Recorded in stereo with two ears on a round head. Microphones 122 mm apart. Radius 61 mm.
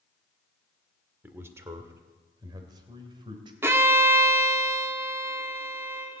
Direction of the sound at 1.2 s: 15° right (ahead or behind).